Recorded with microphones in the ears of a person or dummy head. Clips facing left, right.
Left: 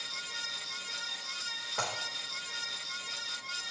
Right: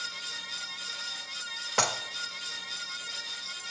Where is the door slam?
I don't hear a door slam.